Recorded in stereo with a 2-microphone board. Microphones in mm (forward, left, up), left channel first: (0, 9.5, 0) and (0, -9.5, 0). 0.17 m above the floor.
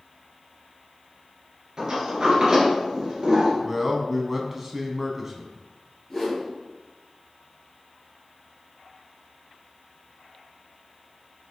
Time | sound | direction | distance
1.8 | a sliding door | 40° right (ahead or behind) | 2.5 m
3.6 | a man speaking | 15° right (ahead or behind) | 1.1 m
6.1 | a whoosh | 15° left (ahead or behind) | 2.5 m